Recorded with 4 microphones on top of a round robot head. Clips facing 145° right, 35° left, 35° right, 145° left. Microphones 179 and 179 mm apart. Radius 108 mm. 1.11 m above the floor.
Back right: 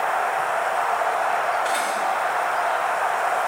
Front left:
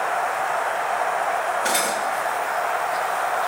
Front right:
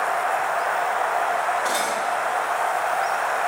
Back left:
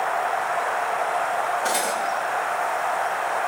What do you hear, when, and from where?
1.6 s cutlery clinking: 80° left, 3 m